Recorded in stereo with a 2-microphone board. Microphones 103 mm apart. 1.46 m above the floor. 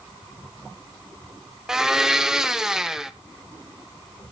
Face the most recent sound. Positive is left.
turn(degrees=-5)  # may be behind; listen again after turning